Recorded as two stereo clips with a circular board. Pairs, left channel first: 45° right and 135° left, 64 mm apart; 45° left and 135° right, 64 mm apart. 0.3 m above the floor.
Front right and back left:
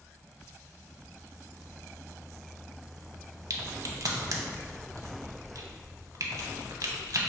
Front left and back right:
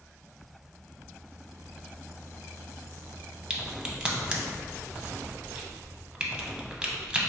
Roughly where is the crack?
Behind left.